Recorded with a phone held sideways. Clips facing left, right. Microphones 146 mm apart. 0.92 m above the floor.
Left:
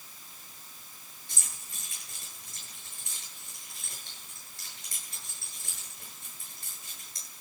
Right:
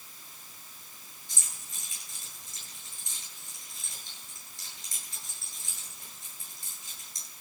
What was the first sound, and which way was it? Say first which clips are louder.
Keys jangling: left 1 dB; 65° left (ahead or behind).